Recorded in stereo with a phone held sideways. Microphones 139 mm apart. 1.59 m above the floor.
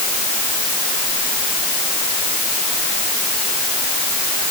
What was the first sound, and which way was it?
Only background noise.